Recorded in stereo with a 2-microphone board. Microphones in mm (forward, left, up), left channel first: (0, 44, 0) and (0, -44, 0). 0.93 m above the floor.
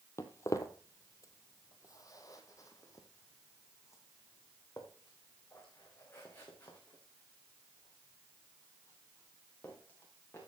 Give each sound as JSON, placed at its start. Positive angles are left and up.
{"t": 0.2, "sound": "footsteps", "side_deg": 30, "distance_m": 1.1}